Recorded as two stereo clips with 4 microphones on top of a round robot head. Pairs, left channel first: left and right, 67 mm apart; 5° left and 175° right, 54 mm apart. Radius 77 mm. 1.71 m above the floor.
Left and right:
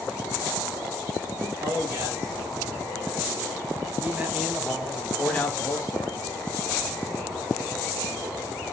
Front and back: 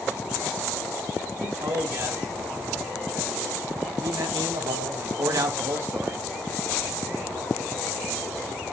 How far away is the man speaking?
About 3 m.